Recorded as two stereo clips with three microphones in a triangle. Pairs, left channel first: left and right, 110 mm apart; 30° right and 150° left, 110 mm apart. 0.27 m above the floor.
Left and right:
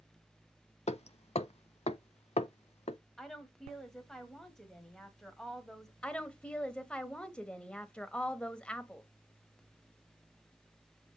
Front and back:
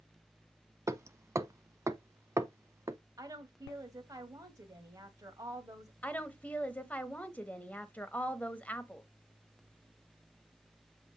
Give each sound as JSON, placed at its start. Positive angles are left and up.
{"t": 0.9, "sound": "hammering", "azimuth_deg": 90, "distance_m": 0.6}
{"t": 3.2, "sound": "a woman speaking", "azimuth_deg": 175, "distance_m": 1.5}
{"t": 6.0, "sound": "a woman speaking", "azimuth_deg": 20, "distance_m": 1.0}